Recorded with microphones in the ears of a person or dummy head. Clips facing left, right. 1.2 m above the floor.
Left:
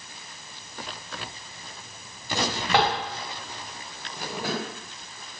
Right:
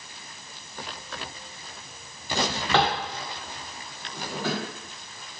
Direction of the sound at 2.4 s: 10° left (ahead or behind).